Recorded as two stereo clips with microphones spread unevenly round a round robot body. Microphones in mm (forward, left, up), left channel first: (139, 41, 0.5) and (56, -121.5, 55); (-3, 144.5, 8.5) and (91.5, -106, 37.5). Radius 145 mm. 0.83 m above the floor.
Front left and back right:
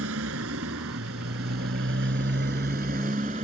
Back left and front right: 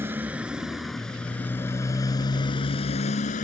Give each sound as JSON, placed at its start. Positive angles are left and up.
{"t": 0.0, "sound": "a motorcycle", "azimuth_deg": -150}